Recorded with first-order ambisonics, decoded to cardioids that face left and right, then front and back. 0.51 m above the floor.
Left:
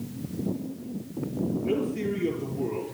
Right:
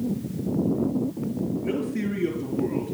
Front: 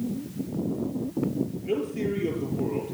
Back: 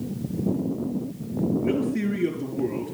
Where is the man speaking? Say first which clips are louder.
Left 3 dB, back 2 dB; 145° right, 7.5 m.